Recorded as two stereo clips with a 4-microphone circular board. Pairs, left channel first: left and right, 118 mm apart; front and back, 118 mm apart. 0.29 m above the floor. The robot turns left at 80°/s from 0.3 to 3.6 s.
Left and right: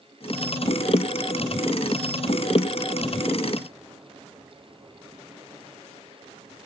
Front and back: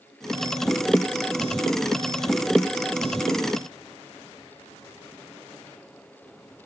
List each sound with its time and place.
Only background noise.